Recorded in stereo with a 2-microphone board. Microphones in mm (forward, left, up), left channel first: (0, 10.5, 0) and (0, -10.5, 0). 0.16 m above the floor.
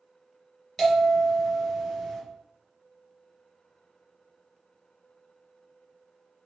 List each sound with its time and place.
0.8 s a bell: 15° left (ahead or behind), 2.0 m